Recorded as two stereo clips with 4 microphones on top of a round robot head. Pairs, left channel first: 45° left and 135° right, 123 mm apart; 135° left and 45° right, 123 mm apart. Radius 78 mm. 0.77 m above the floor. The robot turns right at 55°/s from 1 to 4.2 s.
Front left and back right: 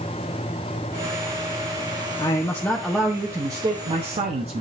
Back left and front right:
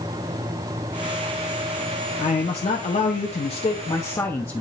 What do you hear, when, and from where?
2.2 s a man speaking: 90° left, 0.9 m; by 4.6 s 160° right, 0.9 m